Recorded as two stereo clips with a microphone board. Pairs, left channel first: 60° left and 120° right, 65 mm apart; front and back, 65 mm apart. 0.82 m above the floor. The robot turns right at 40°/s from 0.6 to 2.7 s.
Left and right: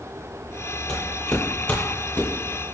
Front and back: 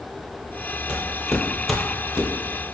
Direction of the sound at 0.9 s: 125° left.